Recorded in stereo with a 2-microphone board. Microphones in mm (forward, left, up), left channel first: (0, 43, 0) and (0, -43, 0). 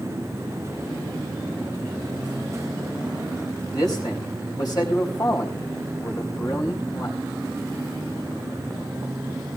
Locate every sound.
3.7 s a man speaking: 50° left (ahead or behind), 4 m